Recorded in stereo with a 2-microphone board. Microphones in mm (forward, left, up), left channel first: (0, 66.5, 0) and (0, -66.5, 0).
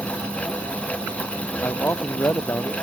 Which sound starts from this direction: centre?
A man speaking, at 1.6 s.